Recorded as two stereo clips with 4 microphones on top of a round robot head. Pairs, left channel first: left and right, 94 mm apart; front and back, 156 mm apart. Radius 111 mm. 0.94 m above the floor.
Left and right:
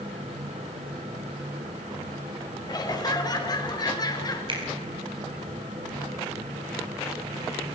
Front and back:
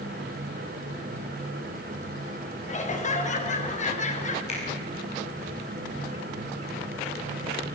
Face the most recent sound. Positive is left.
turn(degrees=-55)